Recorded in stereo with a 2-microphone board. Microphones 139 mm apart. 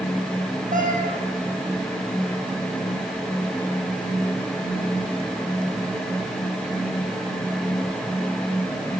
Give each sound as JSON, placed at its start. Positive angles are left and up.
{"t": 0.7, "sound": "a cat meowing", "side_deg": -70, "distance_m": 2.5}